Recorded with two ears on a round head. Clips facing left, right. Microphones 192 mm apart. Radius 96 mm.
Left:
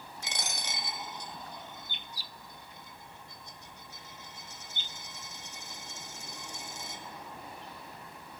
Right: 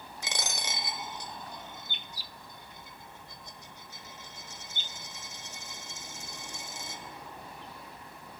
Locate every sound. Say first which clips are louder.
0.2 s a dropped coin: right 3 dB; 65° right (ahead or behind), 1.4 m